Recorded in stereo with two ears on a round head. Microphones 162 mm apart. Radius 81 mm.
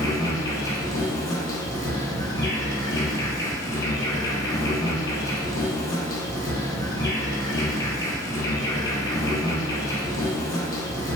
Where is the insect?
20° left (ahead or behind), 0.7 m.